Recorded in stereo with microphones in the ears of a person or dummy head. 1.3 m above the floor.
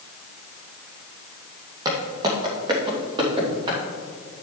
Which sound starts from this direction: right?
Footsteps, at 1.9 s.